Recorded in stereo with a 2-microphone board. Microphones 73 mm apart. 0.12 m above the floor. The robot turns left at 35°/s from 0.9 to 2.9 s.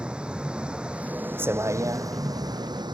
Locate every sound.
0.0 s a vehicle: 15° right; by 2.9 s 85° right